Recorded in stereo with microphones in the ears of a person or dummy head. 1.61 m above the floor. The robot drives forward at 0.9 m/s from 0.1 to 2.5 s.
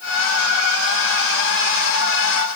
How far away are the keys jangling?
No keys jangling in this recording.